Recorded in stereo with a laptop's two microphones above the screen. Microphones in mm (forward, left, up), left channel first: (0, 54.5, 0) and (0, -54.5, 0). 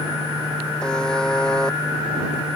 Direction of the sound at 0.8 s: 5° left (ahead or behind).